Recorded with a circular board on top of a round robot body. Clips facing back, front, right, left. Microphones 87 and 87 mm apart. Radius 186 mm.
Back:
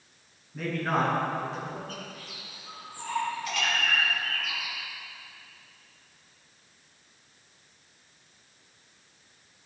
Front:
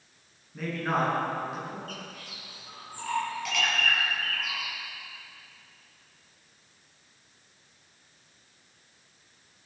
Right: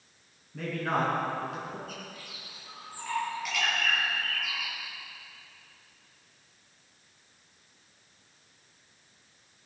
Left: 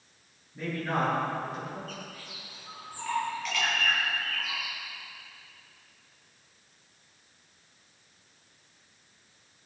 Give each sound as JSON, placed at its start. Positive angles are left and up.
{"t": 0.5, "sound": "a man speaking", "azimuth_deg": -85, "distance_m": 7.5}
{"t": 1.9, "sound": "a bird", "azimuth_deg": -10, "distance_m": 6.5}